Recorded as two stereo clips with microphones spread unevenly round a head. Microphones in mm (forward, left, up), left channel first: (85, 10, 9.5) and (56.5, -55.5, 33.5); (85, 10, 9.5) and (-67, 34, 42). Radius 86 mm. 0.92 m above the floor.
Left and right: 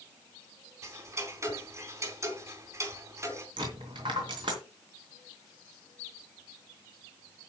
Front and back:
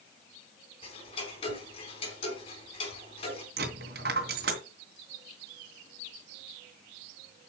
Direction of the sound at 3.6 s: 155° right.